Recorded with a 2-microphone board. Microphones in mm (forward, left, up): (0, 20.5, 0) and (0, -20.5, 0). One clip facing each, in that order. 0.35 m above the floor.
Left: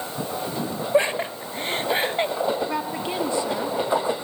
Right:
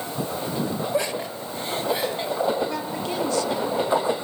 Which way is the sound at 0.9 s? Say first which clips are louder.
Left 4 dB; 30° left (ahead or behind).